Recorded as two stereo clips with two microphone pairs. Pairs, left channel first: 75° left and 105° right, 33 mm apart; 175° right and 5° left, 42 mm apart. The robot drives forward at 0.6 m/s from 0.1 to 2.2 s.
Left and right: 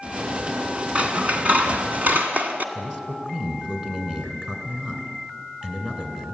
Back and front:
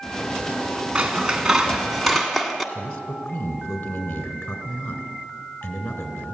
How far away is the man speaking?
About 2.5 m.